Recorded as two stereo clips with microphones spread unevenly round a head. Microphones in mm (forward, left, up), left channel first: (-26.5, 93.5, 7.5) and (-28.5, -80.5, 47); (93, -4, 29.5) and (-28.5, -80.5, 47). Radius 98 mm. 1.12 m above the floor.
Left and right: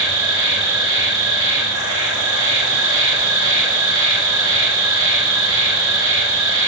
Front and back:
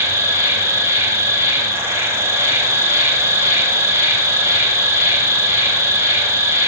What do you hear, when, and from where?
0.0 s an insect: 70° right, 0.9 m